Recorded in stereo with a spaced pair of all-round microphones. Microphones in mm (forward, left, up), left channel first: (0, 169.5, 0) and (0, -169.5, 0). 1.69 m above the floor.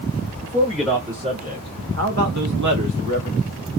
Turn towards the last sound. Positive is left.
turn(degrees=-70)  # may be behind; listen again after turning